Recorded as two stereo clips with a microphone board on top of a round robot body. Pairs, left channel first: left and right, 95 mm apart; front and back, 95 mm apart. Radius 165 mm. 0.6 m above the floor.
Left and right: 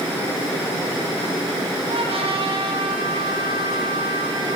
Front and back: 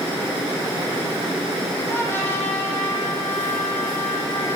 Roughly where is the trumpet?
Right.